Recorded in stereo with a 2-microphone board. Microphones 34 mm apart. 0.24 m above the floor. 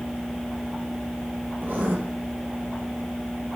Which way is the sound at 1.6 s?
80° right.